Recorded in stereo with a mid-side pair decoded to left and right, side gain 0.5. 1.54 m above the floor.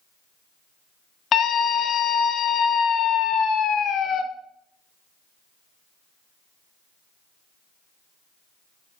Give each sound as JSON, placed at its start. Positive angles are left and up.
{"t": 1.3, "sound": "a scream", "azimuth_deg": 55, "distance_m": 1.7}